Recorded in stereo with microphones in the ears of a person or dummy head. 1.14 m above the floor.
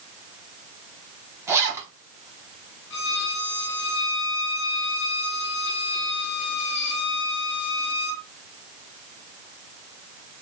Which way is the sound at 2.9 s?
60° left (ahead or behind).